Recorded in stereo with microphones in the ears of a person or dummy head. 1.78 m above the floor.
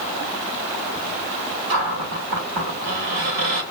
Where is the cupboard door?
65° right (ahead or behind), 3 m.